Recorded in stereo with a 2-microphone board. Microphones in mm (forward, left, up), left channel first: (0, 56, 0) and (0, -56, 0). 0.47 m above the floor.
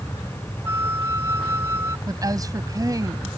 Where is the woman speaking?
35° right (ahead or behind).